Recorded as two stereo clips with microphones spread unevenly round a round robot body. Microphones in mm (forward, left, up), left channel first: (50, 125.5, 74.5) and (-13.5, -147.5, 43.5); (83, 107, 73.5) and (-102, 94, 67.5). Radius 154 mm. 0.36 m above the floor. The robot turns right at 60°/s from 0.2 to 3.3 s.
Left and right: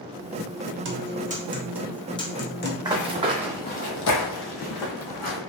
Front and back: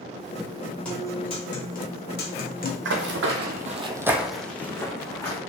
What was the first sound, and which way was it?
A guitar, 80° right.